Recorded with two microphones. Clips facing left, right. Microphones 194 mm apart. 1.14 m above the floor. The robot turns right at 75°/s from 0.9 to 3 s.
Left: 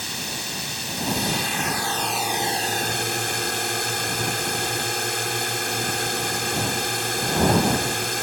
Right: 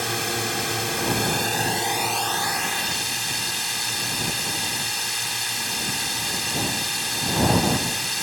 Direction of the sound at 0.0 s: 95° right.